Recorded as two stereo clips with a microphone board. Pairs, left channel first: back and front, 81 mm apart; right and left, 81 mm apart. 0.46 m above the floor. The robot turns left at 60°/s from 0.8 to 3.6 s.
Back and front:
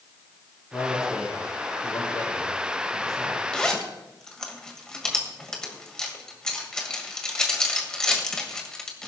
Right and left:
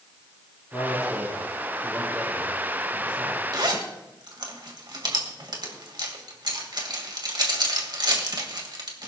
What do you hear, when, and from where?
0.7 s a man speaking: 125° right, 6.5 m; by 3.4 s 75° left, 6.5 m
3.5 s a zipper: 105° left, 2 m; by 9.1 s 100° left, 2 m